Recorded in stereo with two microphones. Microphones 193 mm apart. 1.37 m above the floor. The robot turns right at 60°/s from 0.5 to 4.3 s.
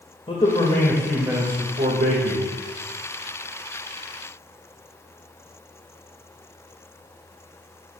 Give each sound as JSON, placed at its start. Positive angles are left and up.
{"t": 0.3, "sound": "a man speaking", "azimuth_deg": 145, "distance_m": 1.9}